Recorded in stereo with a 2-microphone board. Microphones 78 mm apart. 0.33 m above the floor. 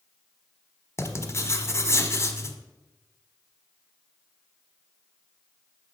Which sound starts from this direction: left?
Writing, at 1.0 s.